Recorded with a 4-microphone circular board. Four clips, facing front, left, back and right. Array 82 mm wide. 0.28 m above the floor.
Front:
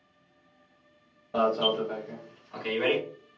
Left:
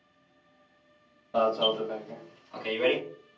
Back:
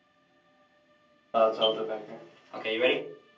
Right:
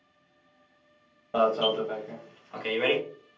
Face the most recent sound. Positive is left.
turn(degrees=-125)